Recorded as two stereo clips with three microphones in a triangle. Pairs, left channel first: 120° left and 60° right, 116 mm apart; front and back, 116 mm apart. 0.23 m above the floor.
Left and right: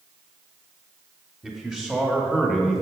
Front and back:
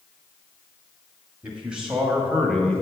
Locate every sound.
1.4 s a man speaking: 125° right, 1.7 m; by 2.8 s 15° left, 1.6 m